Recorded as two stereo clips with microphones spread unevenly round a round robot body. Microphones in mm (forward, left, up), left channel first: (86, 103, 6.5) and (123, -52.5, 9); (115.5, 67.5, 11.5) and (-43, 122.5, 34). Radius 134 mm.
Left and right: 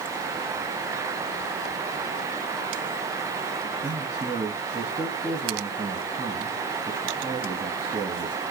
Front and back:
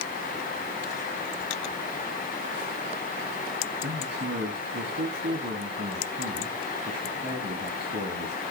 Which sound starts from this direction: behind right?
A man speaking, at 3.8 s.